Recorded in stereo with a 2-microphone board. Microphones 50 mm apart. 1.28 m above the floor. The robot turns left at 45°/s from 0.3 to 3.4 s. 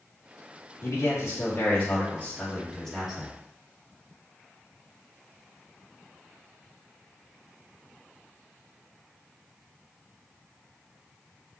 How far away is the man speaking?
About 2 m.